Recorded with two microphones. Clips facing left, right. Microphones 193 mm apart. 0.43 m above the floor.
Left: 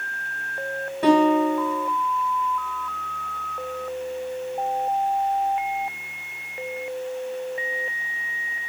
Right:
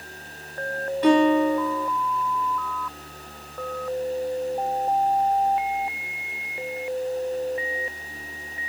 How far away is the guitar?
About 1.5 m.